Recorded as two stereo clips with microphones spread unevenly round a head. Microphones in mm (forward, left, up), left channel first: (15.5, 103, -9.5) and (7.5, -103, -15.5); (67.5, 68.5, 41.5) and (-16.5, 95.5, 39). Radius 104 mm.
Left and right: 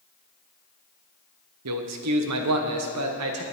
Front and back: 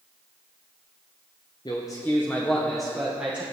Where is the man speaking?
85° right, 1.2 m; by 3.4 s 115° right, 2.0 m.